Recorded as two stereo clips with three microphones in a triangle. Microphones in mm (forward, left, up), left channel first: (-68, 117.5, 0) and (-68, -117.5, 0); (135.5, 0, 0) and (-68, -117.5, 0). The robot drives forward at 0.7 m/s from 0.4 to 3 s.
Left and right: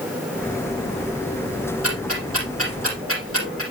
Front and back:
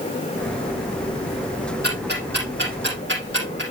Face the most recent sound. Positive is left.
turn(degrees=-110)